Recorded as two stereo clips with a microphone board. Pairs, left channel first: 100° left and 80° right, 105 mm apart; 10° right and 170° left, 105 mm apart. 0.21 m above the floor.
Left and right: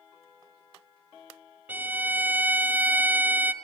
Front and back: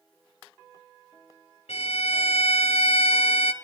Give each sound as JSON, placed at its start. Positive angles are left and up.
{"t": 1.7, "sound": "a violin", "azimuth_deg": -5, "distance_m": 0.9}